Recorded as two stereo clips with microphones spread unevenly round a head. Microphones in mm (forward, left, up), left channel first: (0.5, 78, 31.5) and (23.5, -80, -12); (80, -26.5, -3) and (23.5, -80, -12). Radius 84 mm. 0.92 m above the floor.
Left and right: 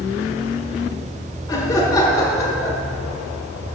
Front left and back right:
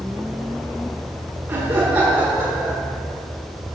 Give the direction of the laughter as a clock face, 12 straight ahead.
6 o'clock.